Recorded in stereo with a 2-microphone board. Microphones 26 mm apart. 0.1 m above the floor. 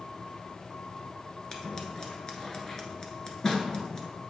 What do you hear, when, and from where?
1.5 s scissors: 25° left (ahead or behind), 1.2 m